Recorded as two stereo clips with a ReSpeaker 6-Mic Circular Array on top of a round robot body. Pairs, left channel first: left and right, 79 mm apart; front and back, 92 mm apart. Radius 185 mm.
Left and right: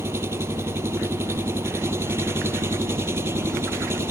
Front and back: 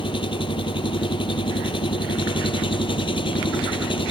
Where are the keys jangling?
No keys jangling in this recording.